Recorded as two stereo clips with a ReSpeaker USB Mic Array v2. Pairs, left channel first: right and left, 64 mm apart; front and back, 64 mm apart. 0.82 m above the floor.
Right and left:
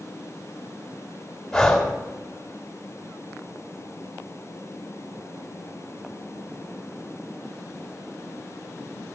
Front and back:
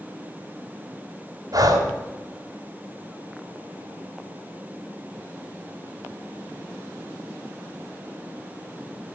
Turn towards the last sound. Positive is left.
turn(degrees=-175)